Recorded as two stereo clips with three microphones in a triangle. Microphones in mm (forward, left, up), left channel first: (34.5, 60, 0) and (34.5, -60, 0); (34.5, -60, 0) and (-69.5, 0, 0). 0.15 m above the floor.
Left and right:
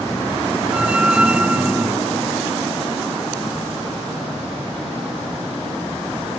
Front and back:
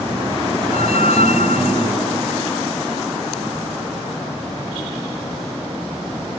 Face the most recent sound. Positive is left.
turn(degrees=-10)